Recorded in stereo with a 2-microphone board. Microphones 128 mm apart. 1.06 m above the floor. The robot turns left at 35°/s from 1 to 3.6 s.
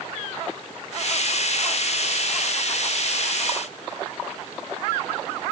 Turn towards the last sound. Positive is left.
No sound to turn to.